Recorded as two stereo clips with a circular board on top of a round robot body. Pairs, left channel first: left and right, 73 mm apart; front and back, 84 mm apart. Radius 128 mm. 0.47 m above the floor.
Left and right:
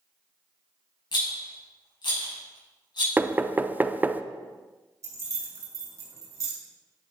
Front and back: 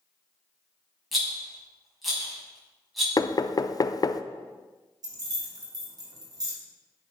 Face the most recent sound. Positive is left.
turn(degrees=-140)